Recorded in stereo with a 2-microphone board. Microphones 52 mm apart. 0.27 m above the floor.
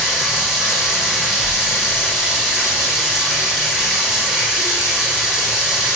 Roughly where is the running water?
Centre.